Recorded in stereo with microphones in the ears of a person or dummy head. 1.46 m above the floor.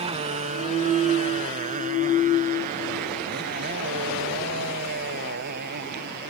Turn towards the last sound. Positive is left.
turn(degrees=-55)  # may be behind; listen again after turning